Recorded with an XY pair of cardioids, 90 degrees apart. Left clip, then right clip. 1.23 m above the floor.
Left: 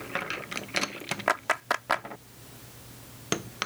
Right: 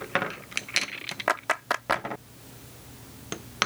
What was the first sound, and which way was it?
A clap, 5° right.